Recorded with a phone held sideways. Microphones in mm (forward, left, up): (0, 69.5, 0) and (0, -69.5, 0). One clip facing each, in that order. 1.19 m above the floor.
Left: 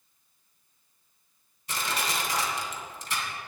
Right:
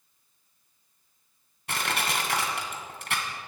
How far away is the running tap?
I don't hear a running tap.